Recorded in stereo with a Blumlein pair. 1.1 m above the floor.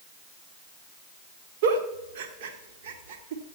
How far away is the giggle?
About 1.6 m.